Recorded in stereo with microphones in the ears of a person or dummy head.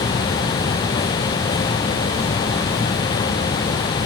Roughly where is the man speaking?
No man speaking in this recording.